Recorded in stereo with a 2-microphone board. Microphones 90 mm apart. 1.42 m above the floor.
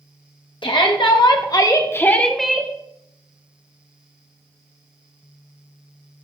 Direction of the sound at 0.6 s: 65° left (ahead or behind).